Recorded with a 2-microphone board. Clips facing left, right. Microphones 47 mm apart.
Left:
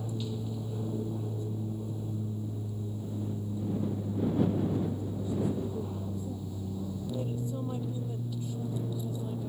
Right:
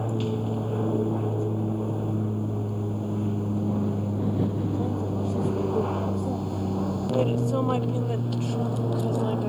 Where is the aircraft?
45° right (ahead or behind); by 9.5 s 65° right (ahead or behind).